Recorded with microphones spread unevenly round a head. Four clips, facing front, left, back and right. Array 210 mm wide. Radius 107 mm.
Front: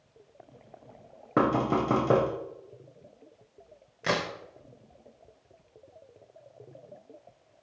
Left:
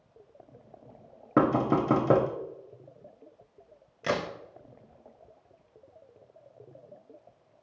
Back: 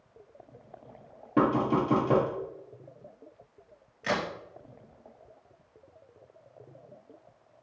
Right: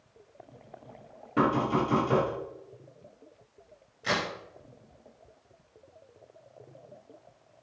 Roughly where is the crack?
Ahead left.